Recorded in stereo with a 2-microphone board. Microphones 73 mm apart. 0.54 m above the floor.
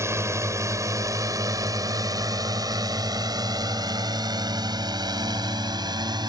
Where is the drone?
40° right (ahead or behind); by 6.3 s 70° right (ahead or behind).